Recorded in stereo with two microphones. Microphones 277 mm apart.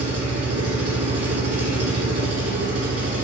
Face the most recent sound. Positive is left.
turn(degrees=-55)  # may be behind; listen again after turning